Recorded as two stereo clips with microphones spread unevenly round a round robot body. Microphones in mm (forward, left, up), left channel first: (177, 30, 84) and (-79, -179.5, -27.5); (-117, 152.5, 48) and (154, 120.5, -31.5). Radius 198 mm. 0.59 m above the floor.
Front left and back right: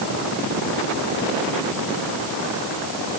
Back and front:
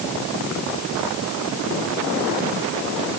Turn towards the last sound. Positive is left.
No sound to turn to.